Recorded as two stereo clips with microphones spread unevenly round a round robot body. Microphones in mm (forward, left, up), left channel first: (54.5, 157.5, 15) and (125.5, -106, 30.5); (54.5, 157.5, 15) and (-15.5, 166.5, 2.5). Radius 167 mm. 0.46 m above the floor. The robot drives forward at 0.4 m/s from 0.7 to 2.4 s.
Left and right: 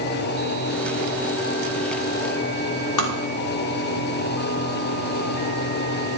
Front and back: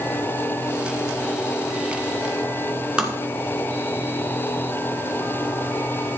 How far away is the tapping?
About 2.5 m.